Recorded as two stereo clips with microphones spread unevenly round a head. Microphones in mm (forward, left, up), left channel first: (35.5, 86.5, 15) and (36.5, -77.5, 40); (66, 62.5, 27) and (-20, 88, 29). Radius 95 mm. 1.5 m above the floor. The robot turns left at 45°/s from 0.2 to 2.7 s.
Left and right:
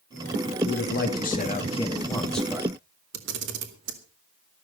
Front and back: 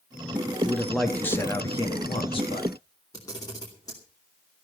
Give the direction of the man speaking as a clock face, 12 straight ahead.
9 o'clock.